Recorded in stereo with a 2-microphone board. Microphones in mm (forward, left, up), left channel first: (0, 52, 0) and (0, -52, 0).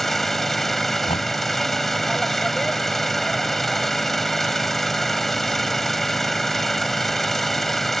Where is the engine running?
Centre (ahead or behind).